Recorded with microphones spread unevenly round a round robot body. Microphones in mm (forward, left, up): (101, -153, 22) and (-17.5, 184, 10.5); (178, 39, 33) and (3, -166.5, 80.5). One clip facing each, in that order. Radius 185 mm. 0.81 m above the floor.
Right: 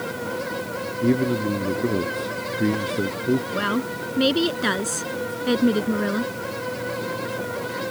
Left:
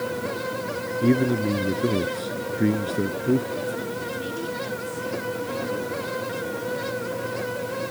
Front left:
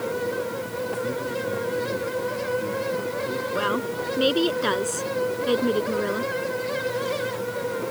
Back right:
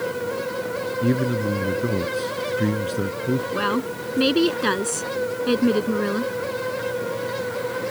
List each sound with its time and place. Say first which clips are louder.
1.0 s a man speaking: even, back right 6 dB; 165° right
3.5 s a woman speaking: right 3 dB, back right 2 dB; 75° right